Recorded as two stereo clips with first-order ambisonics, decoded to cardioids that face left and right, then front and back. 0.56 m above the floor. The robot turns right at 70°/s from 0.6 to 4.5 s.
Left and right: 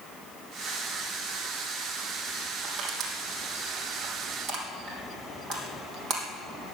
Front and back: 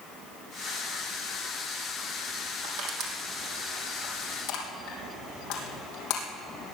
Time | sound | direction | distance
2.6 | crushing | 165° right | 4 m